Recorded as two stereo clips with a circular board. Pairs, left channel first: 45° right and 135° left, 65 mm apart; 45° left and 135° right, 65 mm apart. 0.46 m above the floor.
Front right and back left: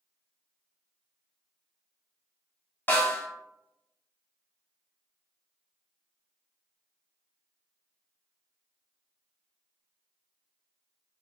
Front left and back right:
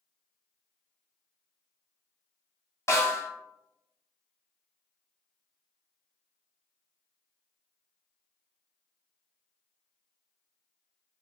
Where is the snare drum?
10° left, 1.0 m.